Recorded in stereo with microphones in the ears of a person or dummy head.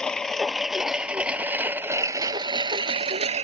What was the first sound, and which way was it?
A lawn mower, centre (ahead or behind).